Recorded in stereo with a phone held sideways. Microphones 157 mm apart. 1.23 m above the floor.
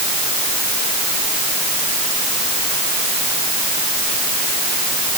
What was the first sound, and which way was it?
Only background noise.